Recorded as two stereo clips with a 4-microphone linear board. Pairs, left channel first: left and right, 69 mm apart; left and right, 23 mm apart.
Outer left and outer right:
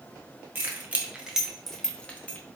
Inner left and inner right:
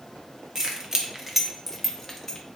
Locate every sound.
0.6 s keys jangling: 25° right (ahead or behind), 0.7 m; by 2.4 s 25° left (ahead or behind), 0.6 m